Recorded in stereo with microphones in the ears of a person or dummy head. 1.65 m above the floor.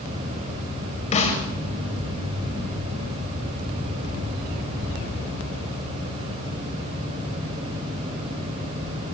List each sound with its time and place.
1.1 s a snare drum: 35° left (ahead or behind), 2 m